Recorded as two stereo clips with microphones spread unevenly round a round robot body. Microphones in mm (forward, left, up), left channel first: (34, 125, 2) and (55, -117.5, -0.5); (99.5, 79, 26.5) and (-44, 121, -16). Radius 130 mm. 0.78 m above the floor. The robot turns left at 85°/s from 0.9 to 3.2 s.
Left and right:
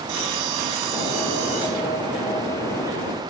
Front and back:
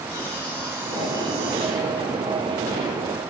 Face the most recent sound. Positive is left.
turn(degrees=70)